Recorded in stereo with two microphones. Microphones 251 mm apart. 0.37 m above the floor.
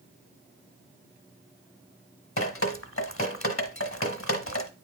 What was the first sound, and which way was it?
Dripping, 60° left (ahead or behind).